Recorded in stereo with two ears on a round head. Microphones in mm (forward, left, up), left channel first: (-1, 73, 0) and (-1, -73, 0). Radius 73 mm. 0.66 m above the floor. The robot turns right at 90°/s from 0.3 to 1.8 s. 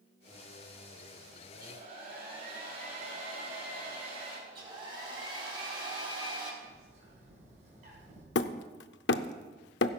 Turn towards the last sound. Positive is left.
turn(degrees=75)  # may be behind; listen again after turning